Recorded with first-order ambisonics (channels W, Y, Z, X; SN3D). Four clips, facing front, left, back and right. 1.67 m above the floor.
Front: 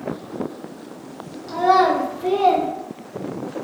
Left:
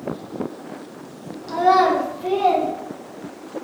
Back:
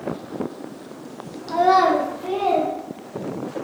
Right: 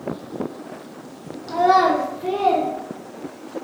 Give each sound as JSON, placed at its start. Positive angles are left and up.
{"t": 1.5, "sound": "a child speaking", "azimuth_deg": -170, "distance_m": 0.7}